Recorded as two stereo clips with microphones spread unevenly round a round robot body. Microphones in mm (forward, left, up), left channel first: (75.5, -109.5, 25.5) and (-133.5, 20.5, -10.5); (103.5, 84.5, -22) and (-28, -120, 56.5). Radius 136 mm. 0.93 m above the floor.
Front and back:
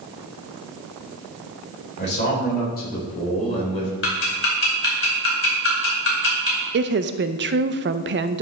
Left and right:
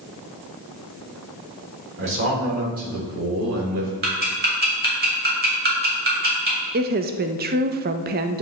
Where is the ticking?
70° right, 3 m.